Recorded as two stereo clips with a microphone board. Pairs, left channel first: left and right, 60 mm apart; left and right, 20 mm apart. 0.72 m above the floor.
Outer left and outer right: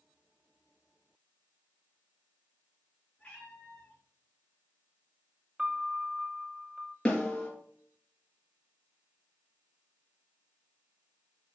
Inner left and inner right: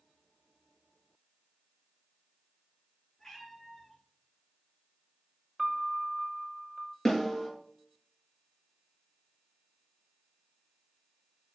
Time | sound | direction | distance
3.2 | a cat meowing | 15° left (ahead or behind) | 4.5 m
5.6 | a piano | 20° right (ahead or behind) | 0.6 m
7.0 | a snare drum | 15° left (ahead or behind) | 4 m